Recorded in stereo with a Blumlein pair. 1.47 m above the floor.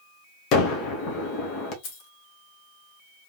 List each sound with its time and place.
0.5 s a gunshot: 35° left, 1.4 m
1.8 s keys jangling: 45° left, 1.3 m